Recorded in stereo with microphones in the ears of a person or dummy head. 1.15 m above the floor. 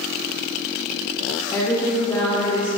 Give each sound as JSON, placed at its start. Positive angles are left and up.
{"t": 1.5, "sound": "a woman speaking", "side_deg": 15, "distance_m": 1.0}